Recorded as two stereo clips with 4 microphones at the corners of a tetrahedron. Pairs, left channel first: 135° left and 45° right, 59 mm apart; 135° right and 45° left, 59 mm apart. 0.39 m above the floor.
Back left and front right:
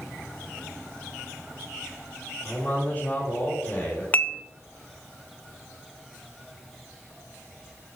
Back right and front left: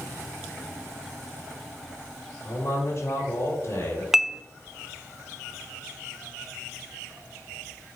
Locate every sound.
2.4 s a man speaking: 165° right, 3.5 m
4.1 s dishes clattering: 120° left, 0.6 m